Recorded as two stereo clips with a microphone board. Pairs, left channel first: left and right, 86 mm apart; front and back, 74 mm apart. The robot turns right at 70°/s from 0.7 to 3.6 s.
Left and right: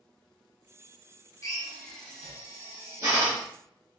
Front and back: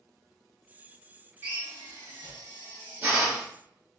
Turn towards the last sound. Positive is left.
turn(degrees=-80)